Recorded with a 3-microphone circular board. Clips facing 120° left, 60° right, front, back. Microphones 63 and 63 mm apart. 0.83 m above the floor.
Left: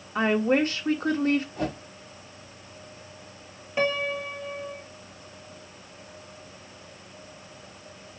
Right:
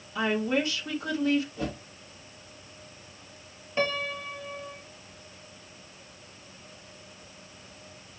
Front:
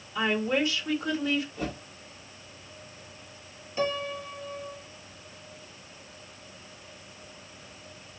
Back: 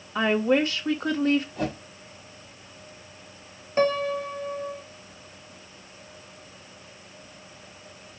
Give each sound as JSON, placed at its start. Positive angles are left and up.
{"t": 0.1, "sound": "a woman speaking", "azimuth_deg": 155, "distance_m": 1.3}
{"t": 1.6, "sound": "a whoosh", "azimuth_deg": 155, "distance_m": 2.0}
{"t": 3.8, "sound": "a piano", "azimuth_deg": -160, "distance_m": 0.7}